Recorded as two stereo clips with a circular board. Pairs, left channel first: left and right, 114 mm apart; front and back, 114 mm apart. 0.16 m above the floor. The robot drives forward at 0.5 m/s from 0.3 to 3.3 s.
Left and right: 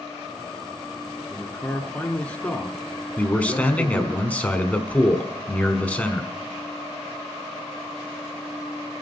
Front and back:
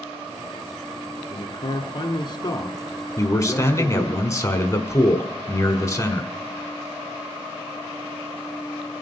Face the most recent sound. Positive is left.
turn(degrees=25)